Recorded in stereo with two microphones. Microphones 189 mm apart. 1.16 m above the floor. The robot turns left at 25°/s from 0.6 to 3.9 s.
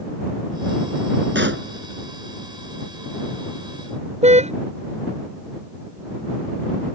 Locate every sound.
1.4 s a pop: 75° right (ahead or behind); by 1.7 s 85° right
4.2 s a car horn: 35° right (ahead or behind)